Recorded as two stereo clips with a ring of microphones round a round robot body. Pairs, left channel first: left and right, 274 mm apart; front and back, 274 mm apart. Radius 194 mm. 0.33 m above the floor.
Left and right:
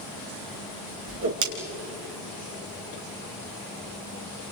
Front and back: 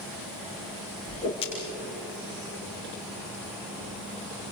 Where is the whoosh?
75° right, 3.5 m.